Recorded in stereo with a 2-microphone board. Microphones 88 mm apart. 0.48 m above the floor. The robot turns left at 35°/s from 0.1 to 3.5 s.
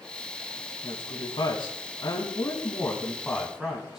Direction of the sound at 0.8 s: 85° left.